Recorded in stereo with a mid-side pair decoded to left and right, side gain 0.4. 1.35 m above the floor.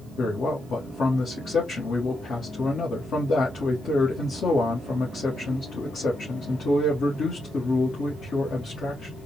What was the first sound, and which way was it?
A man speaking, 55° left.